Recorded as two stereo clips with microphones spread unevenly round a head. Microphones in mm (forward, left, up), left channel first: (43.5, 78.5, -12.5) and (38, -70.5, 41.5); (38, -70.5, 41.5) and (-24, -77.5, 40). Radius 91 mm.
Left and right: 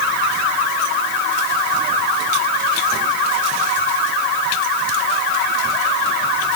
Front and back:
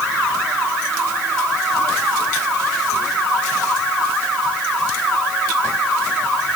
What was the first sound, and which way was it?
Only background noise.